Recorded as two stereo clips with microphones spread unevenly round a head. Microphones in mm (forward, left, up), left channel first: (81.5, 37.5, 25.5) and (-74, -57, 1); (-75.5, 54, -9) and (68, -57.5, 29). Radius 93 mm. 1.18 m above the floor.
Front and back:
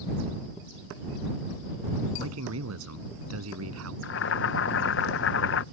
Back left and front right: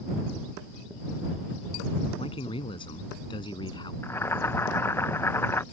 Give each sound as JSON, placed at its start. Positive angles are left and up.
{"t": 2.2, "sound": "a man speaking", "azimuth_deg": -155}
{"t": 4.0, "sound": "boiling", "azimuth_deg": 65}